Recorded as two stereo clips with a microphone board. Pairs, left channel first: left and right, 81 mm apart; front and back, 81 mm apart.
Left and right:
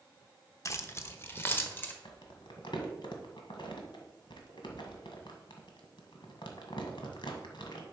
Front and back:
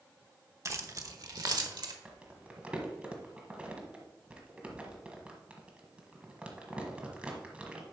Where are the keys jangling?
135° left, 0.8 m; by 1.9 s 155° left, 1.3 m.